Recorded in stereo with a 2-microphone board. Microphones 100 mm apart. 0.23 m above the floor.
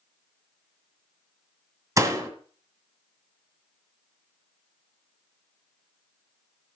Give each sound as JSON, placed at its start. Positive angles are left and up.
{"t": 2.0, "sound": "a door slam", "side_deg": -30, "distance_m": 1.4}